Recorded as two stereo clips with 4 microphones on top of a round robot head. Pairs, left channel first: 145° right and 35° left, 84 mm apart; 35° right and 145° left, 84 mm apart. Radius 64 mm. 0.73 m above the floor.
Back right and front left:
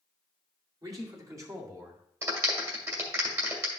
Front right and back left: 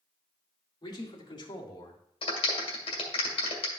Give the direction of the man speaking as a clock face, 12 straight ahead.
12 o'clock.